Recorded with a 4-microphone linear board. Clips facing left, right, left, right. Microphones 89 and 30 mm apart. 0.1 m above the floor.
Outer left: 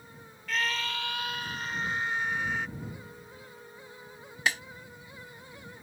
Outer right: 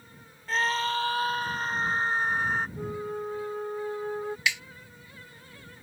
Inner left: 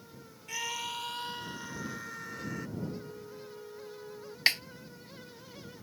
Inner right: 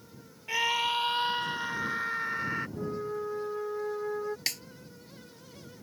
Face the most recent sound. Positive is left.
turn(degrees=40)  # may be behind; listen again after turning